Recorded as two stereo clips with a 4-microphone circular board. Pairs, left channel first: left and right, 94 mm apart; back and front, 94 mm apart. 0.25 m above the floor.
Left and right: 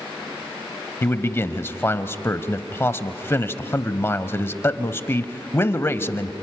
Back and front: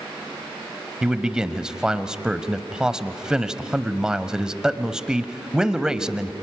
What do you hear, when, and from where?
1.0 s a man speaking: 70° left, 1.0 m